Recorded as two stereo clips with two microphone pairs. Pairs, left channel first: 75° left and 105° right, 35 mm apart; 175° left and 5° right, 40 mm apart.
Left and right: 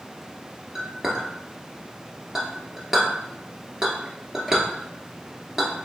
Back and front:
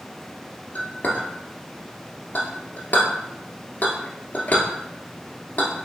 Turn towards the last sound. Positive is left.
turn(degrees=-175)